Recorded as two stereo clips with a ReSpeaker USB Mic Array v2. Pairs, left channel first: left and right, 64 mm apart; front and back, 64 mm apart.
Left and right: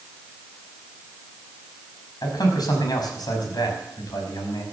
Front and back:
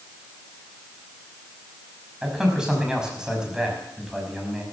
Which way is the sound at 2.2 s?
100° left.